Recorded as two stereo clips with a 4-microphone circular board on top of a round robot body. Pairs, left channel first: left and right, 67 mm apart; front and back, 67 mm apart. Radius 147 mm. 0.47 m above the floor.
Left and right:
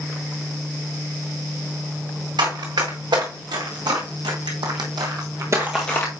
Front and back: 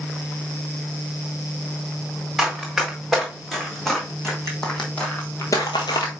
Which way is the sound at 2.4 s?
90° right.